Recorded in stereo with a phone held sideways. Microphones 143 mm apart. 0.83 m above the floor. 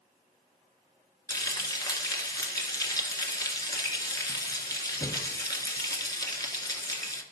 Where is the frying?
25° left (ahead or behind), 1.8 m.